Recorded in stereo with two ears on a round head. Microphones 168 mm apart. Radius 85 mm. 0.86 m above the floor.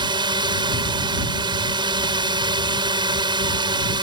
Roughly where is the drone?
Right.